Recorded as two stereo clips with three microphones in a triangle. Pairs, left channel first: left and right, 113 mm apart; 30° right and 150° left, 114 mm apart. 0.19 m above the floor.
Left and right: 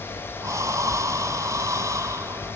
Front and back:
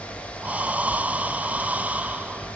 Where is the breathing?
135° right, 0.5 m.